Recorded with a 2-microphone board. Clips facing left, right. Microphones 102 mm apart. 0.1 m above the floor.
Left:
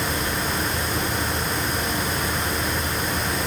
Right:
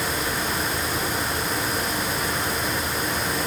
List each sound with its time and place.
Only background noise.